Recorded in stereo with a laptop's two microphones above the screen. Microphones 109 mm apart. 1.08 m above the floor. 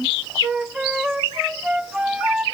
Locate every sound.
0.4 s a flute: 5° right (ahead or behind), 0.8 m